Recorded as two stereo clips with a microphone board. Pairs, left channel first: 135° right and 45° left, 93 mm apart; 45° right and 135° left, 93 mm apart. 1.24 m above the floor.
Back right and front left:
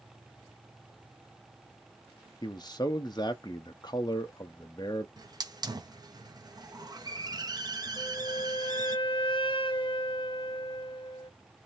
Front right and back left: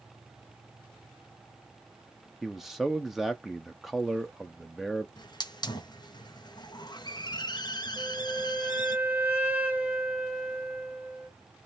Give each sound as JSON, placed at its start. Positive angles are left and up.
{"t": 2.4, "sound": "a man speaking", "azimuth_deg": -140, "distance_m": 0.6}
{"t": 5.2, "sound": "a hiss", "azimuth_deg": 0, "distance_m": 0.9}
{"t": 8.0, "sound": "a flute", "azimuth_deg": -155, "distance_m": 1.2}